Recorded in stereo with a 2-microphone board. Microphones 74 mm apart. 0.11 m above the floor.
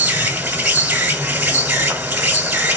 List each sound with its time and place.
0.0 s an insect: 25° right (ahead or behind), 0.8 m